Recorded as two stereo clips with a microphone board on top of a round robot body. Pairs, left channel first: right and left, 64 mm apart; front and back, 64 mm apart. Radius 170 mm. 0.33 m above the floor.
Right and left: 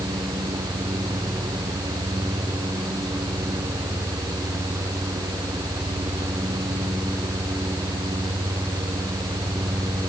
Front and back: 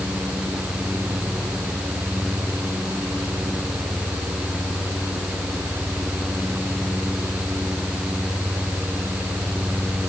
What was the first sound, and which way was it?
Only background noise.